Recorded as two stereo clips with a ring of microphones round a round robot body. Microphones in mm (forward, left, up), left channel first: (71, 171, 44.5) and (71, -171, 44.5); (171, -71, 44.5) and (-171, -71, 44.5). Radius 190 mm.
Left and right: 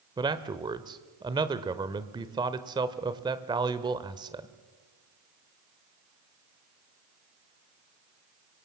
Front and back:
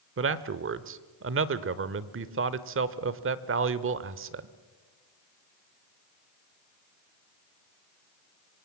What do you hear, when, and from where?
0.2 s a man speaking: 160° right, 1.0 m